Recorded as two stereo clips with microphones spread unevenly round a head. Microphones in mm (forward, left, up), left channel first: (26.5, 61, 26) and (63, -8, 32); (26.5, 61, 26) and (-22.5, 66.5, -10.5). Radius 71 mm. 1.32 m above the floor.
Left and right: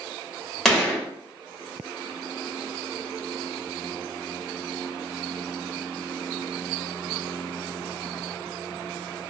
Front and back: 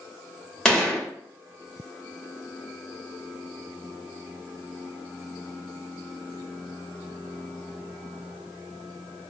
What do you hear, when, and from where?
0.7 s a gunshot: 35° left, 1.1 m